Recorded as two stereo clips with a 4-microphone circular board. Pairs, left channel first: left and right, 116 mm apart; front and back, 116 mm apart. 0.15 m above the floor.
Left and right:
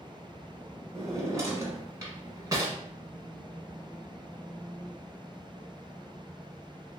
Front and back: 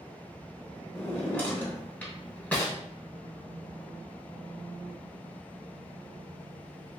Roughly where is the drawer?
Ahead right.